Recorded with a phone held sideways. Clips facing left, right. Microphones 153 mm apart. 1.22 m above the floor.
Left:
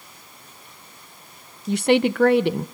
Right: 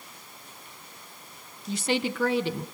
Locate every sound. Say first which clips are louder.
1.7 s a woman speaking: left 9 dB; 65° left (ahead or behind), 0.9 m